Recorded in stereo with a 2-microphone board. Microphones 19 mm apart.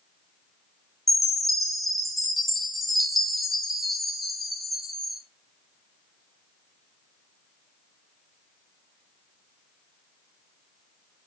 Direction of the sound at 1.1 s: Centre (ahead or behind).